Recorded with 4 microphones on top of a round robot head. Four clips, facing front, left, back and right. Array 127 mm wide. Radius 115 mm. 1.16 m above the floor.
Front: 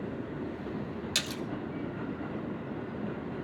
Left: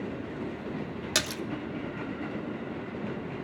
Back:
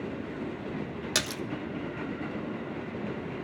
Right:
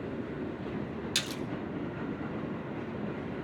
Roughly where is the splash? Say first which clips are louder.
Left 4 dB, back 3 dB; behind left.